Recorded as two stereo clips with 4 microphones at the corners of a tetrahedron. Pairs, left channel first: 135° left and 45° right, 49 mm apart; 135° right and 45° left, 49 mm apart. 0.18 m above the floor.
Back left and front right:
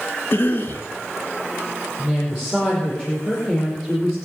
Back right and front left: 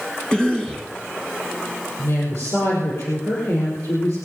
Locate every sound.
0.3 s a cough: 155° left, 2 m
2.0 s a woman speaking: 125° right, 5 m